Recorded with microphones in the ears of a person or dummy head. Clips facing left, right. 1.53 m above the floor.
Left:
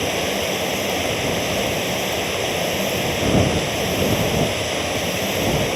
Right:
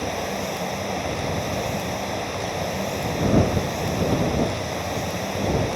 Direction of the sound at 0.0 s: 45° left (ahead or behind).